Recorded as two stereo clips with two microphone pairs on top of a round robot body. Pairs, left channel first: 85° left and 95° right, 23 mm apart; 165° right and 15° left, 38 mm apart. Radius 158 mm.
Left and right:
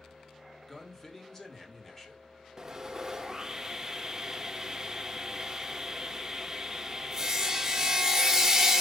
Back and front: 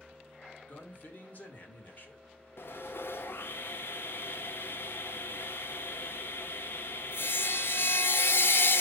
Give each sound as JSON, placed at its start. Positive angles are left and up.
{"t": 0.7, "sound": "a man speaking", "azimuth_deg": 145, "distance_m": 2.5}
{"t": 2.6, "sound": "sawing", "azimuth_deg": -170, "distance_m": 1.2}